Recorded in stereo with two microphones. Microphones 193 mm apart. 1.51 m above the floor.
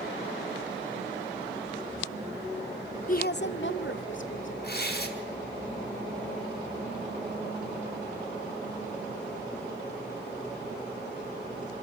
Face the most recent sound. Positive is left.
turn(degrees=55)  # may be behind; listen again after turning